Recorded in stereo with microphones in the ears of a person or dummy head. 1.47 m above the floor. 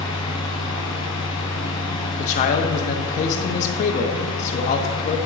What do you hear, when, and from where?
0.0 s a fan: 20° left (ahead or behind), 1.8 m
2.2 s a man speaking: 40° left (ahead or behind), 0.7 m